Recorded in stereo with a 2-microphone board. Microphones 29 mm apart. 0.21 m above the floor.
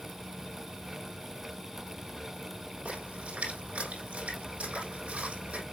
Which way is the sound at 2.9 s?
55° right (ahead or behind).